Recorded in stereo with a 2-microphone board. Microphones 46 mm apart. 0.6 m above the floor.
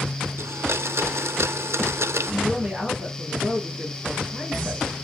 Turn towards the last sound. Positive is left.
turn(degrees=-30)  # may be behind; listen again after turning